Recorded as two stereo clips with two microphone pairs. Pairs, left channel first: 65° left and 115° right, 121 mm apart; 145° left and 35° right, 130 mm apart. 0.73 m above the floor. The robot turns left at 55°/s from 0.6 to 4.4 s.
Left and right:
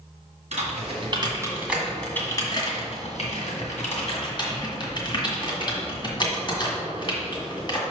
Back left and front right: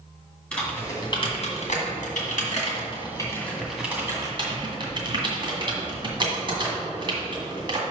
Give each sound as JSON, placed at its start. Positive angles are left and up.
{"t": 0.5, "sound": "typing on a keyboard", "azimuth_deg": -135, "distance_m": 1.9}